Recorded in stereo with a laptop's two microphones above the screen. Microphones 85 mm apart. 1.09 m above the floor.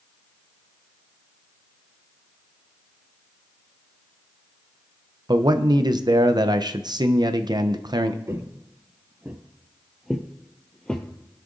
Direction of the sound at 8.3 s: 35° right (ahead or behind).